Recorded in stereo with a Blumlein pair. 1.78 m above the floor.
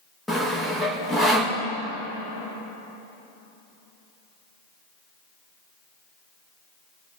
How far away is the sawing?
About 2 m.